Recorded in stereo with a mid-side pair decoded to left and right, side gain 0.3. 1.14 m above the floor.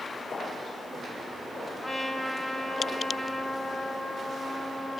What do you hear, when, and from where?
1.8 s a trumpet: 40° left, 3 m